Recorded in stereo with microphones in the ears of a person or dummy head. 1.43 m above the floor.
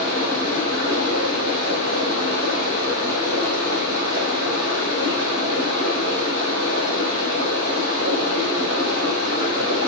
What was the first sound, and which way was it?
Running water, 70° right (ahead or behind).